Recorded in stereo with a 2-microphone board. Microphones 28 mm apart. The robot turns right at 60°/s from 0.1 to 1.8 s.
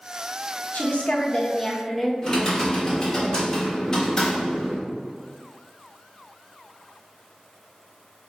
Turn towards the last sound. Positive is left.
turn(degrees=20)  # may be behind; listen again after turning